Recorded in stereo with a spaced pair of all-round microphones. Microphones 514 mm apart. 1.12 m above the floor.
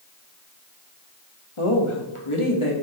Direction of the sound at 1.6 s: 80° left.